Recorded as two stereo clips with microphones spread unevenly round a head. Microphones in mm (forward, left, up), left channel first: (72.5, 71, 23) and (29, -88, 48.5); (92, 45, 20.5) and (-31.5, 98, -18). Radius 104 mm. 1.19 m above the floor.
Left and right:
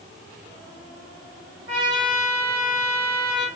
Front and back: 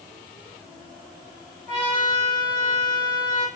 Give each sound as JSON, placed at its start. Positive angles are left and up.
{"t": 1.7, "sound": "a trumpet", "azimuth_deg": -120, "distance_m": 1.4}